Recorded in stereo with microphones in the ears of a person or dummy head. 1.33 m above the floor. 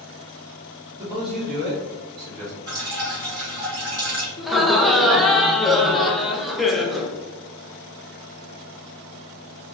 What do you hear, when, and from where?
1.0 s a man speaking: 20° right (ahead or behind), 0.7 m; by 2.6 s 70° right (ahead or behind), 1.0 m
2.7 s dripping: 55° right (ahead or behind), 1.3 m
4.4 s laughter: 5° left (ahead or behind), 0.5 m